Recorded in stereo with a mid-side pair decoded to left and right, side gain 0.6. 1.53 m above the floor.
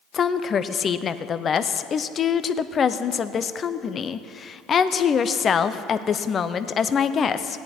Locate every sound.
0.1 s a woman speaking: 35° left, 0.6 m